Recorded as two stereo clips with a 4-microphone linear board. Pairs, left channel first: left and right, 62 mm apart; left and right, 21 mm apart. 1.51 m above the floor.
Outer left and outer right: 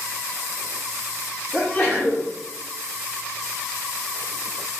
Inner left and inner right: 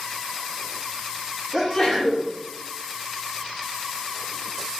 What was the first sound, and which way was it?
A sneeze, 5° left (ahead or behind).